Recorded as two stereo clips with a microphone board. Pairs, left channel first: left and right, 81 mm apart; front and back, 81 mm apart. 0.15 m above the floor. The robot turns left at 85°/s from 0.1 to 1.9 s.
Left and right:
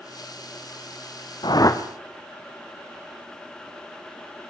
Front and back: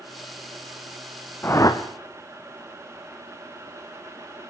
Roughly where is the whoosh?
Ahead left.